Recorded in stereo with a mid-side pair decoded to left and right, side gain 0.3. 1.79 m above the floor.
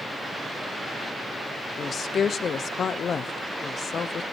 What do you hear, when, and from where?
1.8 s a woman speaking: 70° left, 1.1 m